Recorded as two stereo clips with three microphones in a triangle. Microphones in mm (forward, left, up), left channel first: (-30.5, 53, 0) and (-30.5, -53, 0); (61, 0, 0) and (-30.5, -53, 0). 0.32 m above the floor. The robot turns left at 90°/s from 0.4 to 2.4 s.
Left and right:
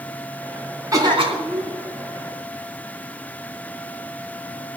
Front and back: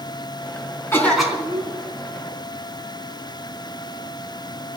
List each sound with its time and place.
0.9 s a cough: 35° right, 4 m; by 1.7 s 110° right, 4 m